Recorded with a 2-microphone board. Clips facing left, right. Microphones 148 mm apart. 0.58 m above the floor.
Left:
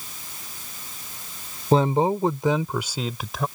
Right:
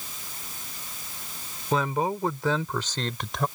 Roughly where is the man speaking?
Left.